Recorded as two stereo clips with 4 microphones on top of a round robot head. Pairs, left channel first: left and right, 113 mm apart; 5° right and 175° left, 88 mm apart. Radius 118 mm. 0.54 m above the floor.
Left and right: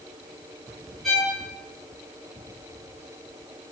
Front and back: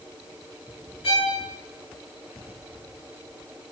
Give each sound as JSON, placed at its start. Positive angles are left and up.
{"t": 1.0, "sound": "a violin", "azimuth_deg": 0, "distance_m": 9.5}